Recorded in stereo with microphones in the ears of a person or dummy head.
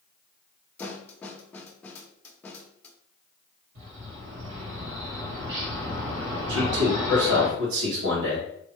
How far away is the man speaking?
About 2 m.